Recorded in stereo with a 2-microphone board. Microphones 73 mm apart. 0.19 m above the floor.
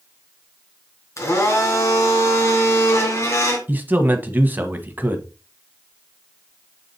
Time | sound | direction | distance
1.2 | a blender | 45° left (ahead or behind) | 2.5 m
3.7 | a man speaking | 25° right (ahead or behind) | 1.1 m